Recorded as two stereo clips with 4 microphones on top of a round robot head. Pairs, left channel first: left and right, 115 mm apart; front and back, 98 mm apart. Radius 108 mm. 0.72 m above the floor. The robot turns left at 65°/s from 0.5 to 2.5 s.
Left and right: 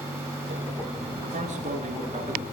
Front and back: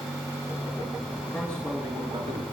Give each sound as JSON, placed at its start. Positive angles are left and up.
{"t": 1.3, "sound": "a man speaking", "azimuth_deg": -70, "distance_m": 8.0}